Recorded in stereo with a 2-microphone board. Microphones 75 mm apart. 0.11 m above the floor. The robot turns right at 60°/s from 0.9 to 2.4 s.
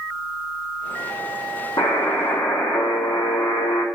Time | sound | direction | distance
1.8 | a buzzer | 85° left | 0.7 m